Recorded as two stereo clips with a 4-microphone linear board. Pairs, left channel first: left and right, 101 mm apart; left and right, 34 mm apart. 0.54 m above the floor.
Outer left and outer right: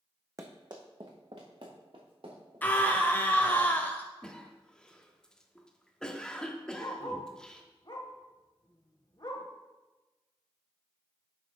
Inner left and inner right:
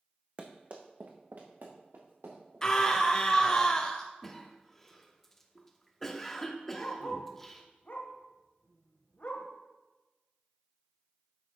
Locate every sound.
0.4 s running footsteps: 35° right (ahead or behind), 1.2 m; by 3.6 s 75° right (ahead or behind), 4.5 m
2.6 s a scream: 20° left (ahead or behind), 0.7 m
4.2 s a cough: 10° left (ahead or behind), 0.9 m
6.8 s a dog barking: 45° left (ahead or behind), 1.1 m